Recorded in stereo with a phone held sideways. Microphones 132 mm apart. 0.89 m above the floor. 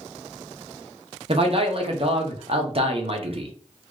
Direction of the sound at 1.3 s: 45° right (ahead or behind).